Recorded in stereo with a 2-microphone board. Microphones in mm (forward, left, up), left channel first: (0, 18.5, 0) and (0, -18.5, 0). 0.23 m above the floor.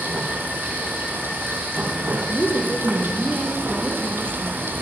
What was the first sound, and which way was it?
Running water, 70° right (ahead or behind).